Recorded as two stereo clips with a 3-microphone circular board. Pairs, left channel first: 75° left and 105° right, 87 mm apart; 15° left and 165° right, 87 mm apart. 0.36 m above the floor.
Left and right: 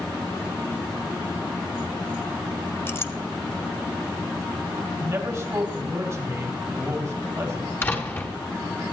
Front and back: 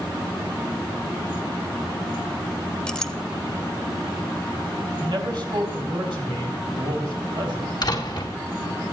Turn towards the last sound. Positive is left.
turn(degrees=20)